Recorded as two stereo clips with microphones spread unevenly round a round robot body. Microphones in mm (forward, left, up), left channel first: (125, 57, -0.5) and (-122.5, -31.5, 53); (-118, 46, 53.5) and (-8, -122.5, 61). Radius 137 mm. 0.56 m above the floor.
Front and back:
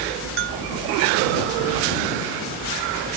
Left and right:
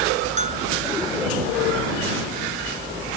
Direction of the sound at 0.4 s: 110° right.